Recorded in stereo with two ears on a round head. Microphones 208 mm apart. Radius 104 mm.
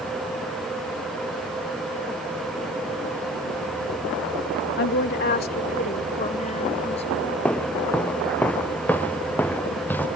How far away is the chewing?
No chewing in this recording.